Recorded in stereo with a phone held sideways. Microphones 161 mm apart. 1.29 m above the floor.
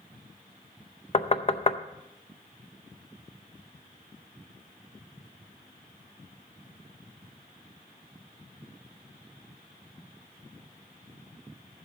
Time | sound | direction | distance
1.1 | knocking | 40° left (ahead or behind) | 0.6 m